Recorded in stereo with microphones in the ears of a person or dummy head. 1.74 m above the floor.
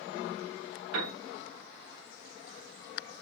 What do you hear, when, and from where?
0.9 s a piano: 80° right, 0.9 m